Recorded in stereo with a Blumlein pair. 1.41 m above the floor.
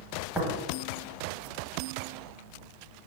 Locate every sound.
0.3 s tapping: 10° left, 1.1 m